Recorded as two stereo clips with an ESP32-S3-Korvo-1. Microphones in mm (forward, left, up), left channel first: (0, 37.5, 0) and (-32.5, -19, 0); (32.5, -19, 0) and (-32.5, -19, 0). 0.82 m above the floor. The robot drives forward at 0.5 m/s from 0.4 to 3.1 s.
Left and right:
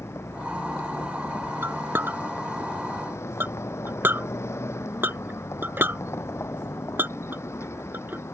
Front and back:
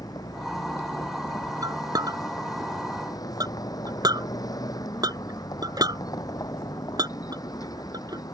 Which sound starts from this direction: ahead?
A vehicle, at 0.0 s.